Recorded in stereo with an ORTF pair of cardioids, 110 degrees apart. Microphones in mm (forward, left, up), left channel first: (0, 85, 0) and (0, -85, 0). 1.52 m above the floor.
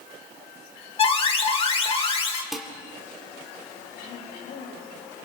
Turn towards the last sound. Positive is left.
turn(degrees=70)